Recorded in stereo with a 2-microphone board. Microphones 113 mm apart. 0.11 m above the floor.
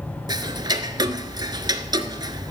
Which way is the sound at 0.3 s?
40° right (ahead or behind).